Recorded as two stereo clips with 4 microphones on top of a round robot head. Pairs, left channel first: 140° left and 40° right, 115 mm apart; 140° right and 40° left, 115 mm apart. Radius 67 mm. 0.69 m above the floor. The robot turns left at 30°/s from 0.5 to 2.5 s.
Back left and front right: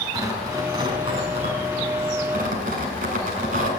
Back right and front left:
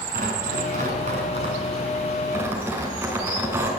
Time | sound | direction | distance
0.1 | tearing paper | 25° left | 7.5 m